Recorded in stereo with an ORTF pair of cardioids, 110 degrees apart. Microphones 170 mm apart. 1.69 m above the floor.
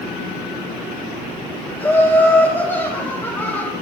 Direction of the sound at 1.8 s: 10° left.